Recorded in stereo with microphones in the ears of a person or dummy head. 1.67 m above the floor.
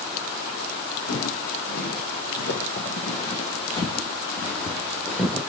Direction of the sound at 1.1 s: 60° left (ahead or behind).